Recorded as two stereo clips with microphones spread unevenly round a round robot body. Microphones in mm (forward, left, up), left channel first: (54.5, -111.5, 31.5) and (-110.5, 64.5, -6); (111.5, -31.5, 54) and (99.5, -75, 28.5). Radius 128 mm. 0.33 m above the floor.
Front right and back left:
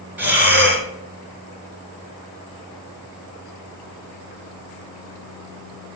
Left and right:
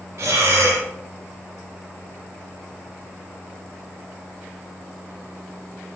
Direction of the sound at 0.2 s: 145° right.